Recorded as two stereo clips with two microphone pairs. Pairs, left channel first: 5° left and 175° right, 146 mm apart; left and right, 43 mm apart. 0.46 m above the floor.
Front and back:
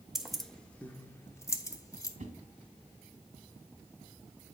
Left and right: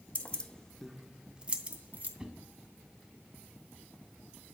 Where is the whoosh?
160° right, 1.3 m.